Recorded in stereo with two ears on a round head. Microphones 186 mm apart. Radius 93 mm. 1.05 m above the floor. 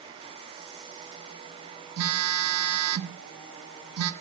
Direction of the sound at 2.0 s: 80° right.